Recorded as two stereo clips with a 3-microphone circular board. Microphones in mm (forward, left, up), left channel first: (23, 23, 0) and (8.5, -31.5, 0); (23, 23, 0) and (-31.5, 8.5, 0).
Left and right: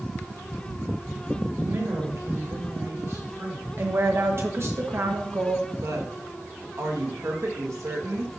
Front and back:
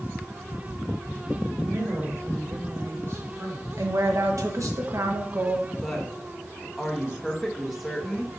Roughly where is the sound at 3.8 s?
Behind right.